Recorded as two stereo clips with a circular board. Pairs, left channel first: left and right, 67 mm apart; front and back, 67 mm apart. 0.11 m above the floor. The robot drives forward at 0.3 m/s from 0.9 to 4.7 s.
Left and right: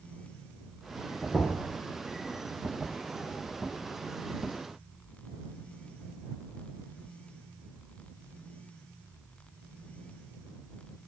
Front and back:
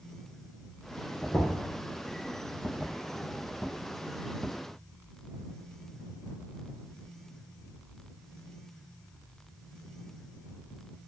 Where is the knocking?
Straight ahead, 1.1 m.